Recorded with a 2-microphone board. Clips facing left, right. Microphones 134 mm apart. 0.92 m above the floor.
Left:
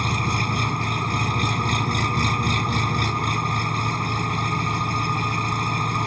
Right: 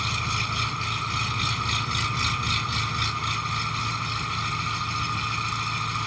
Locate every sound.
0.0 s an engine running: 50° left (ahead or behind)